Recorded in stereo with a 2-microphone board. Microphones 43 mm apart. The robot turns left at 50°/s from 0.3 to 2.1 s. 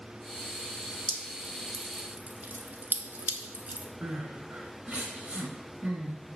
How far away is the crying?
About 1.7 m.